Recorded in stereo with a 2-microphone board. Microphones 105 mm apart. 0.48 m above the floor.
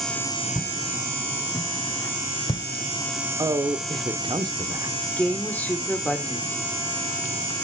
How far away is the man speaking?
About 0.9 m.